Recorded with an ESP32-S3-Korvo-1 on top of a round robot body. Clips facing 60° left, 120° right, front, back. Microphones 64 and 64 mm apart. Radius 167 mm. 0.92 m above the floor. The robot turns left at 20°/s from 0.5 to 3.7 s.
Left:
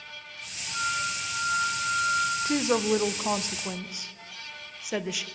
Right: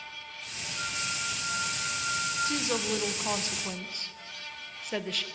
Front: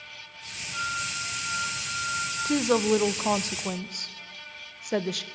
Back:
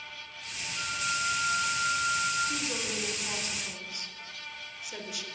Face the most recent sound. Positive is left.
turn(degrees=-20)